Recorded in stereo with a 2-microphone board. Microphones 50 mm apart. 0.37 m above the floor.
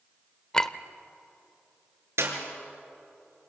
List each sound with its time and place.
0.5 s a clink: 15° left (ahead or behind), 0.8 m
2.2 s a clap: 70° right (ahead or behind), 4.5 m